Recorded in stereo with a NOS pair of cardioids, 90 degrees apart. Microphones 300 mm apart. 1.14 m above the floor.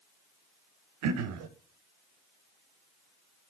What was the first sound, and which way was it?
Throat clearing, 65° right.